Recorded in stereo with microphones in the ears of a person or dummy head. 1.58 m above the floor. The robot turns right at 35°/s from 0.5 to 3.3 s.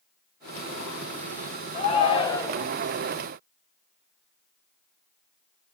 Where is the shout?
140° left, 1.5 m; by 2.7 s 175° left, 1.5 m.